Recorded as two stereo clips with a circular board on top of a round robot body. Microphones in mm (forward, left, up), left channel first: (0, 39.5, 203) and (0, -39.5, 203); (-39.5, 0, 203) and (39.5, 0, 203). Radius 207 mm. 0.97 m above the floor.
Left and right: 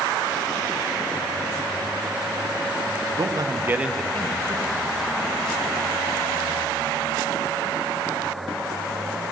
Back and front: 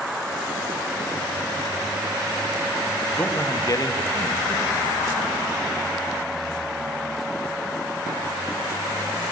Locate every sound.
3.2 s a man speaking: 115° right, 1.1 m; by 5.8 s 110° left, 2 m